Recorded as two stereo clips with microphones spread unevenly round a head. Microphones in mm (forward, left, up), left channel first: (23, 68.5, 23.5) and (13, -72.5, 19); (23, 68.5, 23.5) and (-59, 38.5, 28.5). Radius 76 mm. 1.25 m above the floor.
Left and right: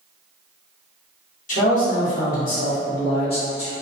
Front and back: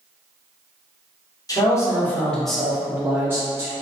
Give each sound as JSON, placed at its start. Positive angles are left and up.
{"t": 1.5, "sound": "a man speaking", "azimuth_deg": 60, "distance_m": 1.0}